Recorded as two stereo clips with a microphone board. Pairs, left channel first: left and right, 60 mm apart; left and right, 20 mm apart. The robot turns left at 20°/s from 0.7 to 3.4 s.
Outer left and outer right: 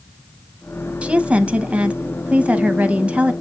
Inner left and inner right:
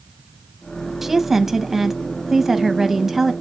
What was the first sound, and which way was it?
A woman speaking, 20° right (ahead or behind).